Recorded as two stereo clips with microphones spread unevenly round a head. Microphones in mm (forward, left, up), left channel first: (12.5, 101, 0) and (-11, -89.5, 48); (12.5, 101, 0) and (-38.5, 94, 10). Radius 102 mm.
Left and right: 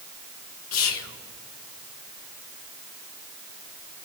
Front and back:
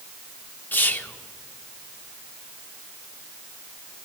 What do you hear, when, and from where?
0.7 s whispering: 65° left, 1.2 m